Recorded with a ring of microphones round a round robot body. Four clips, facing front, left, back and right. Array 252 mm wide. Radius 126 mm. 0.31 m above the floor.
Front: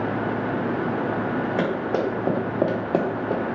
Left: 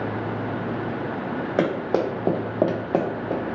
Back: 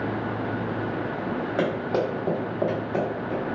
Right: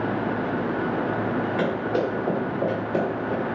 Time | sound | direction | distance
1.6 | running footsteps | 90° left | 1.1 m